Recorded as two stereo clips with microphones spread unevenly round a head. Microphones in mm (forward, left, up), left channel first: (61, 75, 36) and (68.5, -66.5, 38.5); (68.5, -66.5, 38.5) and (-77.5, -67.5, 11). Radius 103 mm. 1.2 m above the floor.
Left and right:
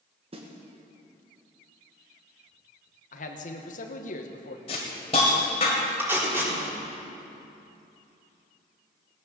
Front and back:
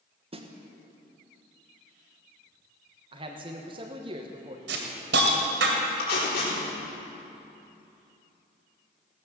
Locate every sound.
0.3 s a snare drum: 140° right, 1.4 m
3.1 s a man speaking: 125° left, 1.1 m
4.7 s a hiss: 155° left, 1.9 m
6.0 s tape being pulled: 10° right, 4 m